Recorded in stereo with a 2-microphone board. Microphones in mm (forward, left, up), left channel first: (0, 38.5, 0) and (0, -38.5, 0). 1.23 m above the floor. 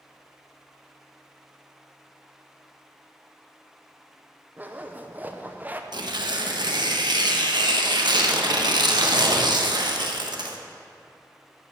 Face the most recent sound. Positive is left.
turn(degrees=-70)  # may be behind; listen again after turning